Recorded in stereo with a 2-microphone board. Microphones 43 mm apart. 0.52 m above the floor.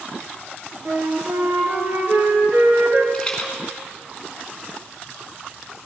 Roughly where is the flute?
Right.